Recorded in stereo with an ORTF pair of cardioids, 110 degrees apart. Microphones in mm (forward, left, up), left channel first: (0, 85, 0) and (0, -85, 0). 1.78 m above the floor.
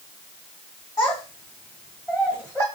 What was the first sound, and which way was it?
A child speaking, 20° left.